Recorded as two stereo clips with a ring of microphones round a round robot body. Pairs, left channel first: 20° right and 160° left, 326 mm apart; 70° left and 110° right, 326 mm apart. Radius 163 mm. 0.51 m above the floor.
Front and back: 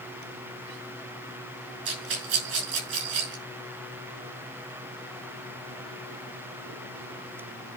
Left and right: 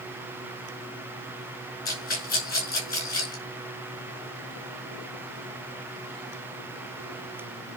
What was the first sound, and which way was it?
A rattle, 130° left.